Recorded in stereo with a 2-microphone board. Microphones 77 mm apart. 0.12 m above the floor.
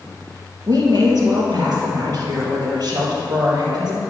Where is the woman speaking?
60° right (ahead or behind), 3 m.